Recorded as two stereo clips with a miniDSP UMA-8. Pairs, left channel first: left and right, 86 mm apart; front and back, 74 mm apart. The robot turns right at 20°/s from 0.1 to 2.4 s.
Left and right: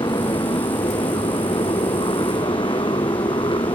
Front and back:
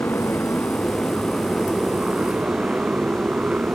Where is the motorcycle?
60° left; by 3.8 s 105° left.